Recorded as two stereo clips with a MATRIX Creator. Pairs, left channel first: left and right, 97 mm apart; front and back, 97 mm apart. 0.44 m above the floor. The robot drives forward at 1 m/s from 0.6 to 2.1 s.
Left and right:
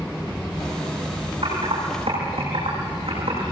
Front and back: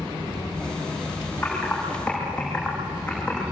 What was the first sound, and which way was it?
Typing on a keyboard, 75° right.